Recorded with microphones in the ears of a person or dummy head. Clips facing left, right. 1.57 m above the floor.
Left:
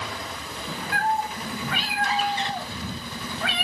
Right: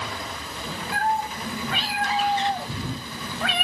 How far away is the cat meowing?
About 2.5 m.